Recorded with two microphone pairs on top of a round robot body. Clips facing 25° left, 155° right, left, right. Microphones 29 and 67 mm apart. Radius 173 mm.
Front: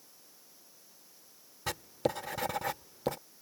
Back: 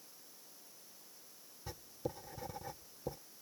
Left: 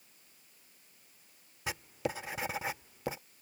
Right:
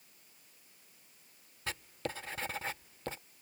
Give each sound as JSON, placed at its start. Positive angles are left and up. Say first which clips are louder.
{"t": 1.7, "sound": "writing", "louder": "front 11 dB, left 4 dB", "azimuth_deg": 10}